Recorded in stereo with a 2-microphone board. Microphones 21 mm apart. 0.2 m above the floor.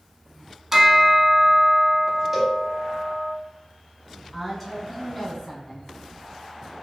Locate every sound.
0.7 s a bell: 20° right (ahead or behind), 0.5 m
2.3 s a cowbell: 15° right (ahead or behind), 0.8 m
4.3 s a woman speaking: 5° left (ahead or behind), 1.1 m